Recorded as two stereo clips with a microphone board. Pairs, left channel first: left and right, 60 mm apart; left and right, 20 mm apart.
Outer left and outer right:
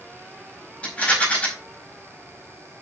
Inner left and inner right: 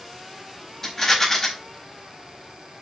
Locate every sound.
0.8 s a rattle: 20° left (ahead or behind), 4 m